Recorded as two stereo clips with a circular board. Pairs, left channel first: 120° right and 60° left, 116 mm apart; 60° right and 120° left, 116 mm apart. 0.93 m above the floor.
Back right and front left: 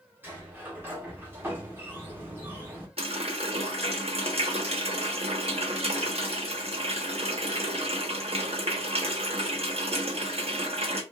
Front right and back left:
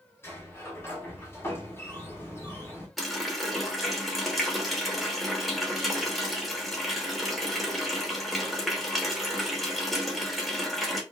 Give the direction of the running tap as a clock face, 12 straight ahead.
11 o'clock.